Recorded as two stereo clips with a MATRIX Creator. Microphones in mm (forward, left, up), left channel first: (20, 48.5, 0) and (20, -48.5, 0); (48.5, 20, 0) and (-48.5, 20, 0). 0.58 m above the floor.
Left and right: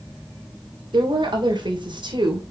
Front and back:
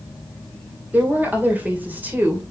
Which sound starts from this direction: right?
A woman speaking, at 0.9 s.